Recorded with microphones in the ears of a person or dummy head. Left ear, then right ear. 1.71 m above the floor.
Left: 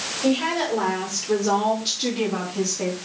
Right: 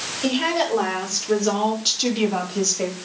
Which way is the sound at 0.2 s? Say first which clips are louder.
Right 1 dB; 35° right (ahead or behind).